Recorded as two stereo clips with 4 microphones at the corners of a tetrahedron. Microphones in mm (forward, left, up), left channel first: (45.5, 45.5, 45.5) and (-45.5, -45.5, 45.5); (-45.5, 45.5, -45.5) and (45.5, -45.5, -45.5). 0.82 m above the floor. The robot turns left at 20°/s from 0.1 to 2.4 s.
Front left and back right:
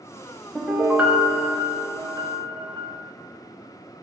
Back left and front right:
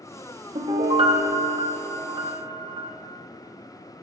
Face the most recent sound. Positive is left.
turn(degrees=-85)